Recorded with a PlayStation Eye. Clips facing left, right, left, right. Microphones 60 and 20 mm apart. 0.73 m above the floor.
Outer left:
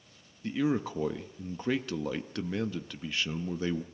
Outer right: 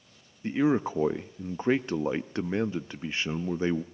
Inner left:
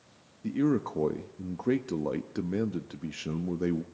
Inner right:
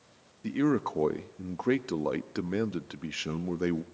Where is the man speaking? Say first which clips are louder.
Outer right 4 dB, even; 30° right (ahead or behind), 0.5 m.